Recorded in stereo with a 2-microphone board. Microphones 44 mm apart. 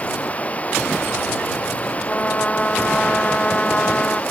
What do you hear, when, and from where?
0.0 s running water: 30° left (ahead or behind)
2.1 s a trumpet: 25° left (ahead or behind)